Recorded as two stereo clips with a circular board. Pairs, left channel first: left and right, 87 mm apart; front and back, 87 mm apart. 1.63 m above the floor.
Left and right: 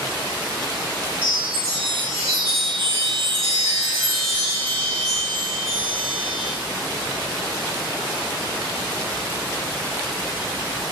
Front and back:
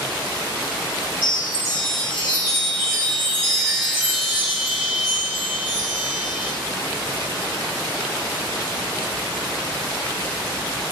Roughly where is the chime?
Right.